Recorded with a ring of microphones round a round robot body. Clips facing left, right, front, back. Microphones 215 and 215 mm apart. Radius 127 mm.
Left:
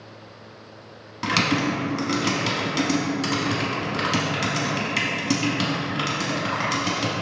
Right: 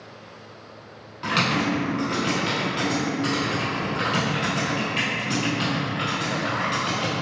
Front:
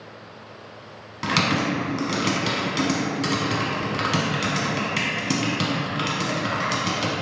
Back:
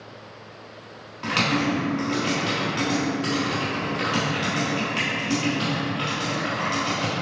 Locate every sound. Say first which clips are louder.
1.2 s typing on a keyboard: left 1 dB, even; 45° left, 0.7 m